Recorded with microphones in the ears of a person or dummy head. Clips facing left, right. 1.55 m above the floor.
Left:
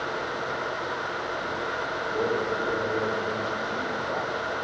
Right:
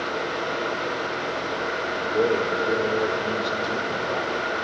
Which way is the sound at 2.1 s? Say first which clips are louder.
Right 5 dB; 40° right (ahead or behind).